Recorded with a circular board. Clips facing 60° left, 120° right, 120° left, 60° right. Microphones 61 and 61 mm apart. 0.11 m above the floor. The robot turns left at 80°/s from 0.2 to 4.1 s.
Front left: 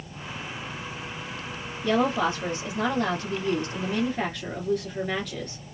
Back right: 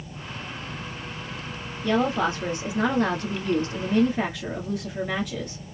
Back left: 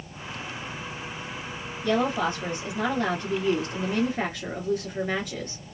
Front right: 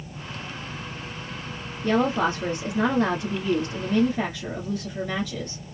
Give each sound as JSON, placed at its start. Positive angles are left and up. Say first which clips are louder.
{"t": 1.8, "sound": "a woman speaking", "louder": "even, front right 2 dB", "azimuth_deg": -15, "distance_m": 1.4}